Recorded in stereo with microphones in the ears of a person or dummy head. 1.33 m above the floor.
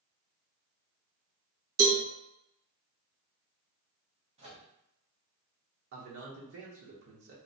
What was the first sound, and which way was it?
A cowbell, 80° right.